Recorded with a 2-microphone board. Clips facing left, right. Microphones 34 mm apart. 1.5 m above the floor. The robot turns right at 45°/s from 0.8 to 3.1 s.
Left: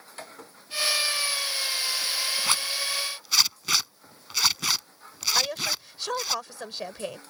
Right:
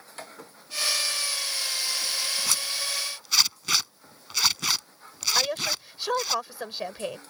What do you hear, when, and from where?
2.5 s a zipper: 35° left (ahead or behind); by 6.3 s 5° left (ahead or behind)
5.3 s a woman speaking: 15° right (ahead or behind)